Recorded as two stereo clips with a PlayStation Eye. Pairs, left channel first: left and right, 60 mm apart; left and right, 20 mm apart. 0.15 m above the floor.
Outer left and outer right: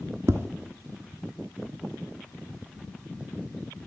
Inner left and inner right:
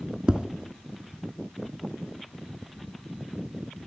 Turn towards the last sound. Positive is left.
turn(degrees=-55)  # may be behind; listen again after turning